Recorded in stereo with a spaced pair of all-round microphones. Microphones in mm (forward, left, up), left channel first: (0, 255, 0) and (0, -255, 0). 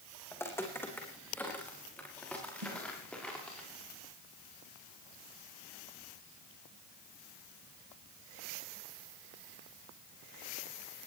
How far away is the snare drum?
About 3.5 m.